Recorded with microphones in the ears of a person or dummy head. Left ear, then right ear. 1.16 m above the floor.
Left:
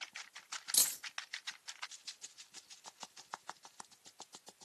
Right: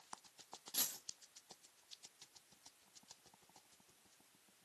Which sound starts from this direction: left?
A dropped coin, at 0.7 s.